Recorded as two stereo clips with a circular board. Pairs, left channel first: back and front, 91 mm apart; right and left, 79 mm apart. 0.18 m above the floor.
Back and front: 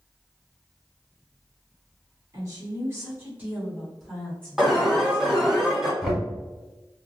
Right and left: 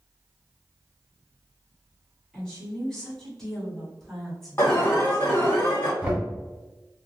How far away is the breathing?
I don't hear breathing.